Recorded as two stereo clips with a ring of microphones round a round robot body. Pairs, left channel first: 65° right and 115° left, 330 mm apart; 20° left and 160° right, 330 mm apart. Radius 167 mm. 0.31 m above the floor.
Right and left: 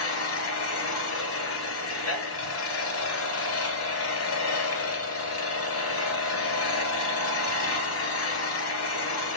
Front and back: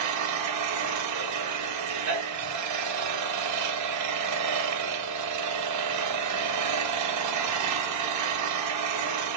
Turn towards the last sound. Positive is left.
turn(degrees=-120)